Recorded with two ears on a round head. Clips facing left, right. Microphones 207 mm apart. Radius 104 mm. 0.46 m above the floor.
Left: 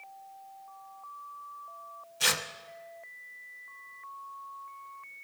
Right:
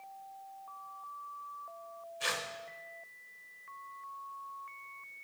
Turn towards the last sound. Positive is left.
turn(degrees=60)  # may be behind; listen again after turning